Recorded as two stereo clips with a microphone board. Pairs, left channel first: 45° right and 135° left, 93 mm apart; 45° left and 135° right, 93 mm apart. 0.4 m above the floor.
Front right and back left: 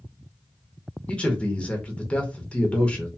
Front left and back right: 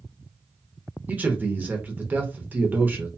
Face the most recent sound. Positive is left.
turn(degrees=-100)